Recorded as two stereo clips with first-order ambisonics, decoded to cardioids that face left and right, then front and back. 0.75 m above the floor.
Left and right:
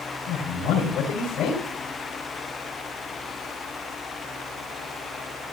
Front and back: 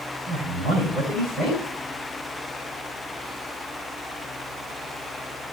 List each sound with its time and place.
0.3 s a man speaking: 135° left, 6.5 m